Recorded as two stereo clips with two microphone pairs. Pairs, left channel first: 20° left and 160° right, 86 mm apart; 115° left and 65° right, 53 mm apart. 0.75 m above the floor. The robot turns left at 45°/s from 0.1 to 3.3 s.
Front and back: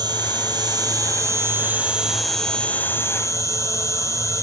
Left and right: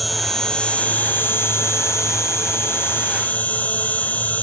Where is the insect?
155° right, 1.6 m; by 4.4 s 60° left, 1.6 m.